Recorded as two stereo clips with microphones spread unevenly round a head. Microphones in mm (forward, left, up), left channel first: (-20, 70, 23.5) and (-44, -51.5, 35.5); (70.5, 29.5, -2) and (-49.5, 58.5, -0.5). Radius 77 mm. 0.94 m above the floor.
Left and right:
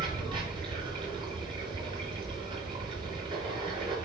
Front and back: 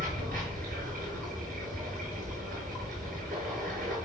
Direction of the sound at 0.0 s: 150° right.